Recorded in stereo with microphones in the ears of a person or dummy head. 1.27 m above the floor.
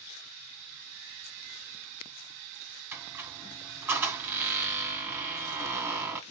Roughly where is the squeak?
Centre.